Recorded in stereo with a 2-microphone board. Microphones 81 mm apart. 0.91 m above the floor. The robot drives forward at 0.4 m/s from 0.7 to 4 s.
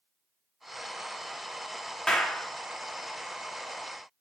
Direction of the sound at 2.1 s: 5° left (ahead or behind).